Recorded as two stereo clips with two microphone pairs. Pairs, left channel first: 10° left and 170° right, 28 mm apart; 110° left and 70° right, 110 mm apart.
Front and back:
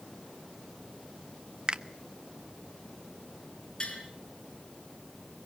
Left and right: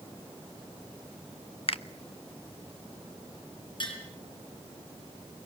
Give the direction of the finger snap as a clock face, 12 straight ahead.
7 o'clock.